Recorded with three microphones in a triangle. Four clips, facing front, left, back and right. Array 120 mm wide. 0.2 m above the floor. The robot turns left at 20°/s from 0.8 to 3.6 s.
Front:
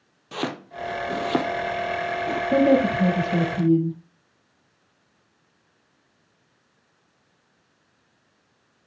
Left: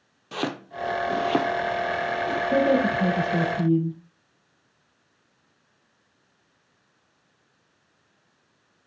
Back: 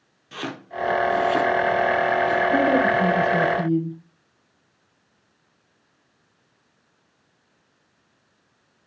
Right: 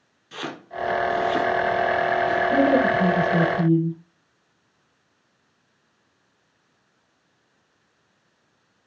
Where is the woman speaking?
20° left, 7 m; by 4.0 s straight ahead, 7 m.